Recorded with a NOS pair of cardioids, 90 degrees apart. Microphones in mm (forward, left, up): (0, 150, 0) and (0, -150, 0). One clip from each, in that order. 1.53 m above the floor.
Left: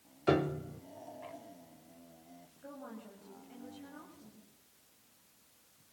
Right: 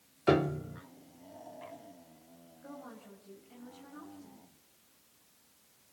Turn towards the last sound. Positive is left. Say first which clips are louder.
# even
turn(degrees=20)